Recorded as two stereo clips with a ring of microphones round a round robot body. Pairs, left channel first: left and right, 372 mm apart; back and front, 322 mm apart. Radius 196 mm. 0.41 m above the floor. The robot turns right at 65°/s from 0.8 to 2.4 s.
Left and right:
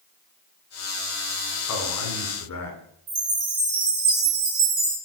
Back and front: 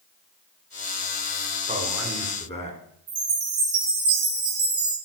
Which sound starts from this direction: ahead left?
A man speaking, at 1.7 s.